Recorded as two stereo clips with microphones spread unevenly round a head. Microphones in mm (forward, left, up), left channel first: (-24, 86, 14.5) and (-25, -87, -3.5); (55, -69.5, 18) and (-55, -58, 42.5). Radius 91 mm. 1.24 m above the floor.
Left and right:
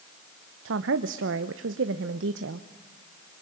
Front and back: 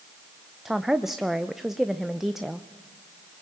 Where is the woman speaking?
95° right, 0.9 m.